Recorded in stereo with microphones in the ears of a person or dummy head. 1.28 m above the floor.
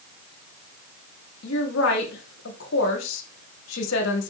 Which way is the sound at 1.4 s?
75° left (ahead or behind).